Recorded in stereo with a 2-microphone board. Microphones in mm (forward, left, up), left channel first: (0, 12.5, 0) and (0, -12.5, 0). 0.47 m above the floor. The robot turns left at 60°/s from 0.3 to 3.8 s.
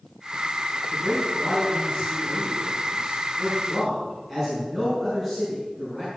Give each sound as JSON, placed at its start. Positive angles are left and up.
{"t": 0.9, "sound": "a man speaking", "azimuth_deg": 180, "distance_m": 5.0}